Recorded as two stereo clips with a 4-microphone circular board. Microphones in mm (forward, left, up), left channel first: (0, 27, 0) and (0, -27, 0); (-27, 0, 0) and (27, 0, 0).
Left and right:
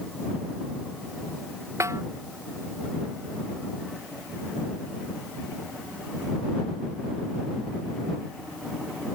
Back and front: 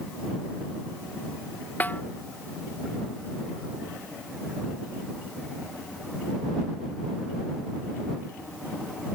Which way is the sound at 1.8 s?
120° right.